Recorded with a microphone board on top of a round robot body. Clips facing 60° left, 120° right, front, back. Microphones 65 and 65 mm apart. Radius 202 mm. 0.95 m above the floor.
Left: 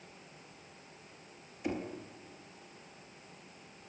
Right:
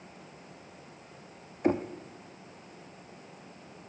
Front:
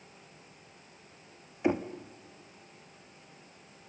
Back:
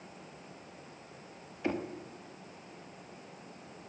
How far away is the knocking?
About 1.4 m.